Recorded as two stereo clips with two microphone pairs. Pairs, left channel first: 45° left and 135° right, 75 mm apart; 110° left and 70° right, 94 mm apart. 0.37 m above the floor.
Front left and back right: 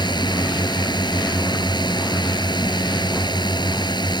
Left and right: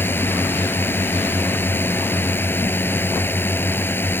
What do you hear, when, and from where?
0.0 s a drone: 40° left